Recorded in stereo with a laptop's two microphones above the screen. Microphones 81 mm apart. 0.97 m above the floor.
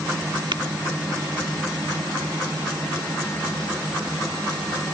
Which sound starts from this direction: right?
Tapping, at 0.5 s.